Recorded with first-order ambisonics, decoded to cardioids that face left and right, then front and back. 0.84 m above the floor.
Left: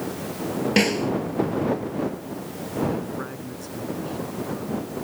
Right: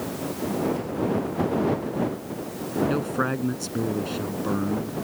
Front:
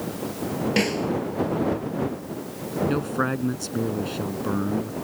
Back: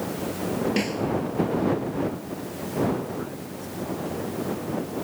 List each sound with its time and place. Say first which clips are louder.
0.8 s a snare drum: left 7 dB, front 3 dB; 70° left
2.9 s a man speaking: right 5 dB, front 5 dB; 35° right